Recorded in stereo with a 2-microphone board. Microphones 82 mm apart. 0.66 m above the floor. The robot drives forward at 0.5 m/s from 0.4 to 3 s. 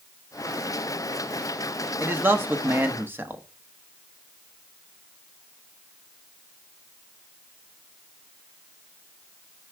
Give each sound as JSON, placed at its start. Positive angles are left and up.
{"t": 2.0, "sound": "a man speaking", "side_deg": -25, "distance_m": 1.2}